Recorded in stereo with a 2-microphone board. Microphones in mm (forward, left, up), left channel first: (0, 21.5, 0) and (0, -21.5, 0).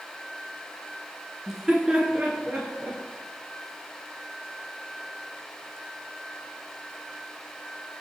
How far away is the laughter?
About 1.2 m.